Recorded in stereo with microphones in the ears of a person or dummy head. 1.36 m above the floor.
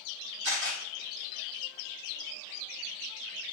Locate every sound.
0.4 s a camera shutter: 55° right (ahead or behind), 1.0 m